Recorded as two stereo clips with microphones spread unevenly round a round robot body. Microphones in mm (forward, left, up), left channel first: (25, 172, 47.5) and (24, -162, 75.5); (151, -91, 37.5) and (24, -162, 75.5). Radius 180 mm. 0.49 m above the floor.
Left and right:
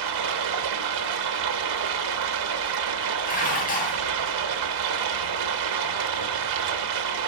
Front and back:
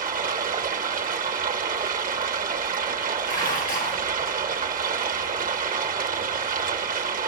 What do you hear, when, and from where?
0.0 s running water: 115° right, 1.0 m
3.2 s dishes clattering: 25° left, 3 m